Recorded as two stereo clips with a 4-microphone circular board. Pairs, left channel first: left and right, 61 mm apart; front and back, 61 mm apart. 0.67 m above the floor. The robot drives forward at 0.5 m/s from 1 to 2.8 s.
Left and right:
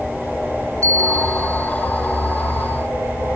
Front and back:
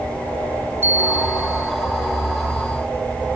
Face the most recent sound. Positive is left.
turn(degrees=-130)